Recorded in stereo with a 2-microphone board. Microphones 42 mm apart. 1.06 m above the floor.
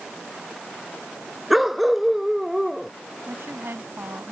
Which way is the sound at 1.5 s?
5° right (ahead or behind).